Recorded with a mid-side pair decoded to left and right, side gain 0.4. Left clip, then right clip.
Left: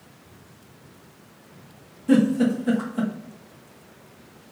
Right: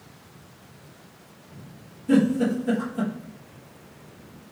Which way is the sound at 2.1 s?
50° left.